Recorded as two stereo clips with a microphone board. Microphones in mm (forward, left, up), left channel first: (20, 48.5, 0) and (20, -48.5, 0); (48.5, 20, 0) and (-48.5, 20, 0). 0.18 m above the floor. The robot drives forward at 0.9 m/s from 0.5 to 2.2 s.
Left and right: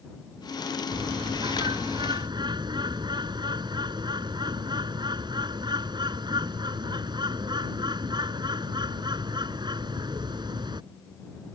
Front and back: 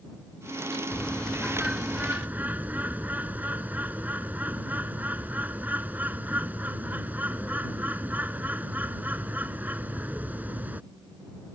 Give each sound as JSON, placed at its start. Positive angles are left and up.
{"t": 0.9, "sound": "a bird", "azimuth_deg": -75}